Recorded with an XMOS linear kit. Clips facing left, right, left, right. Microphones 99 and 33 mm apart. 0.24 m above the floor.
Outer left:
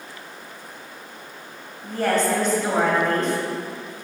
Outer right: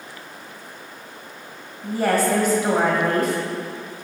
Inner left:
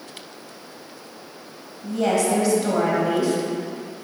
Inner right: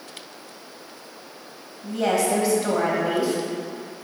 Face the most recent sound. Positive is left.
turn(degrees=-10)  # may be behind; listen again after turning